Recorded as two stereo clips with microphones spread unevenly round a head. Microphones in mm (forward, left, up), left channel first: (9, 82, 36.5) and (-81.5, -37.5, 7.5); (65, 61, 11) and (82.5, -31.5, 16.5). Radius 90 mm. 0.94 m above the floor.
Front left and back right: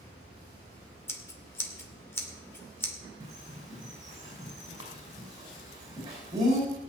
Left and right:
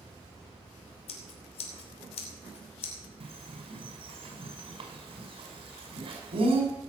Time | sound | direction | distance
1.1 | scissors | 130° left | 2.5 m
3.2 | a bird | 55° right | 5.5 m